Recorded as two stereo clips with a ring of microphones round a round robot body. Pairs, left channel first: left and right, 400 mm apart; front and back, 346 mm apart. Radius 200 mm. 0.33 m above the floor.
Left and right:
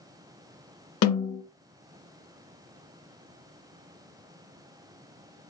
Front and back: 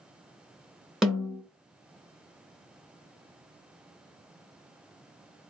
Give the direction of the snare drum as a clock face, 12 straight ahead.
9 o'clock.